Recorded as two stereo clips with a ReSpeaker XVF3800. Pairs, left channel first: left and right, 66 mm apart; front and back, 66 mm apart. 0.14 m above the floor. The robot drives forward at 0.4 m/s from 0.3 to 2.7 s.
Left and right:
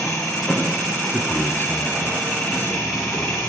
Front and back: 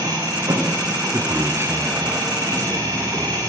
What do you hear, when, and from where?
0.0 s an engine running: 170° left, 8 m
1.1 s a man speaking: 135° left, 2.5 m; by 3.5 s 145° left, 3 m